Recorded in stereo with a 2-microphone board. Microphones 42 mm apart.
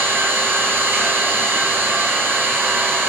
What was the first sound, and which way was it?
An engine running, 50° right (ahead or behind).